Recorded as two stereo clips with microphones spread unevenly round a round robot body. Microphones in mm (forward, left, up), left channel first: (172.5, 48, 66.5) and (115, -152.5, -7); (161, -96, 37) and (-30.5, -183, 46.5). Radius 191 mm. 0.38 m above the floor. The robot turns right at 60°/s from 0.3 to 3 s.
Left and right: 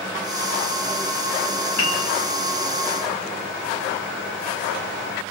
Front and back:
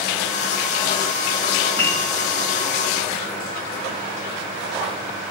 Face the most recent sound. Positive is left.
turn(degrees=180)